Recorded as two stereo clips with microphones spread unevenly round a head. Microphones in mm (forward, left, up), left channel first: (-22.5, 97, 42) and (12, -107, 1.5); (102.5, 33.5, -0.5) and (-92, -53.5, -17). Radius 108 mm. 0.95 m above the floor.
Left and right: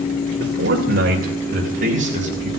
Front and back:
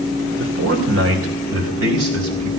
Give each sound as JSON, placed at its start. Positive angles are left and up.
{"t": 0.4, "sound": "a man speaking", "azimuth_deg": -125, "distance_m": 2.5}